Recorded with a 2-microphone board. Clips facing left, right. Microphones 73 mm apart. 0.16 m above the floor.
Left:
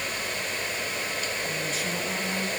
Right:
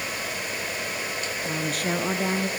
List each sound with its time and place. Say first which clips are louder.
1.4 s a woman speaking: right 3 dB; 55° right (ahead or behind), 2.5 m